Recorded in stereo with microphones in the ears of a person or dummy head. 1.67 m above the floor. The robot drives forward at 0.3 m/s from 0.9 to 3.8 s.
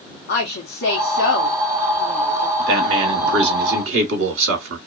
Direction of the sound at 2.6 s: 65° right (ahead or behind).